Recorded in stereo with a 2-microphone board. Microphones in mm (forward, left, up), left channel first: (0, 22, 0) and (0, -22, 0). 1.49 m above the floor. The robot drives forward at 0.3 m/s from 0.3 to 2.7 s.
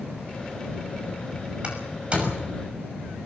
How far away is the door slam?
About 6 m.